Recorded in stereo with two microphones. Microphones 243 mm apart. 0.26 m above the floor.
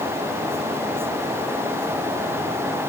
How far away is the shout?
I don't hear a shout.